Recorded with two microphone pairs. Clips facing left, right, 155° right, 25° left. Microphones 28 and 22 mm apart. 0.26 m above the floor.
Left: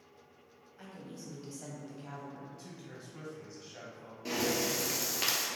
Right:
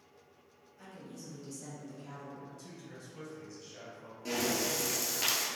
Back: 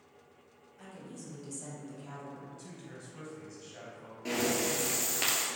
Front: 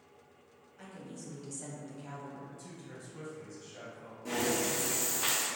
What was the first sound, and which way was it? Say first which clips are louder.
A woman speaking: left 1 dB, even; 100° left.